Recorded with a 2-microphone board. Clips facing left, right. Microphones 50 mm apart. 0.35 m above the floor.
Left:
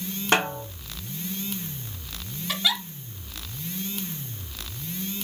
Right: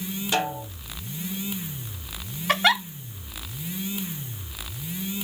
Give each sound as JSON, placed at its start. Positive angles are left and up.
{"t": 0.3, "sound": "a snare drum", "side_deg": 60, "distance_m": 3.0}
{"t": 2.5, "sound": "a giggle", "side_deg": -50, "distance_m": 0.6}